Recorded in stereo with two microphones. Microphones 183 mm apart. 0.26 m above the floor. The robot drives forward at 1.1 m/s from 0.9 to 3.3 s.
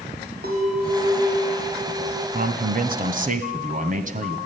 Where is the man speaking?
50° right (ahead or behind), 1.7 m; by 4.4 s 45° right (ahead or behind), 1.8 m.